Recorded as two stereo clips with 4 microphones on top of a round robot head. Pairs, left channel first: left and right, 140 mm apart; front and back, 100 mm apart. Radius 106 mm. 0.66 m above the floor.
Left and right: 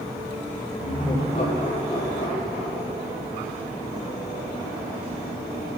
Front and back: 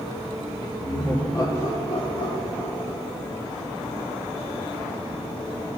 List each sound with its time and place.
0.8 s laughter: 50° left, 3 m; by 3.1 s 35° right, 1.5 m